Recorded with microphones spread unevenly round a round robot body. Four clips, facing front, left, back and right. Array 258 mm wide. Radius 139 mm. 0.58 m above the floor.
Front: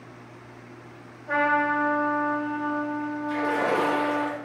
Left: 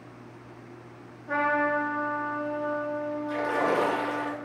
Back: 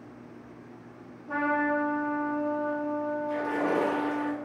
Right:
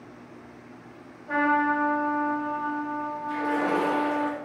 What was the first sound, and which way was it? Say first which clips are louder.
A trumpet: right 2 dB, front 4 dB; 10° left.